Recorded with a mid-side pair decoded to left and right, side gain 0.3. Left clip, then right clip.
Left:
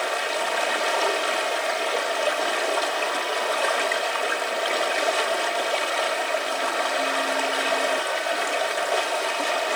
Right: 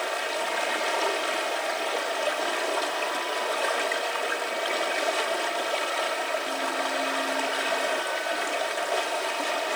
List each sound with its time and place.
0.0 s running water: 30° left, 3 m